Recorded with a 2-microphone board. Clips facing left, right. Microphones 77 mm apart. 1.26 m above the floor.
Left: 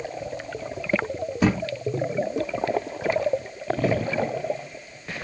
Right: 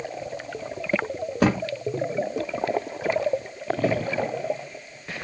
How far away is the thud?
About 1.8 m.